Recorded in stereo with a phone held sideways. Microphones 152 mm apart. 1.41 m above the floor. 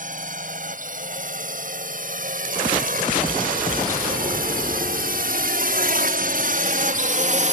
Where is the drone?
60° right (ahead or behind); by 7.5 s 55° right (ahead or behind).